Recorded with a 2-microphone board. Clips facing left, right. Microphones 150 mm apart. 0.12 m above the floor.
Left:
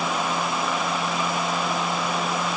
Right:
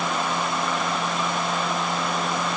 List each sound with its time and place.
Only background noise.